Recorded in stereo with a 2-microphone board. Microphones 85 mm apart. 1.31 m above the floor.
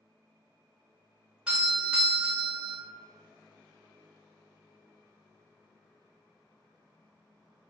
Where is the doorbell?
15° right (ahead or behind), 1.2 m.